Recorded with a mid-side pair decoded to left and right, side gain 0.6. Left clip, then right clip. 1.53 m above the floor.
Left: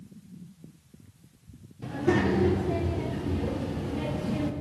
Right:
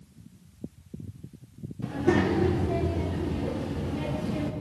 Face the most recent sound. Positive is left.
turn(degrees=5)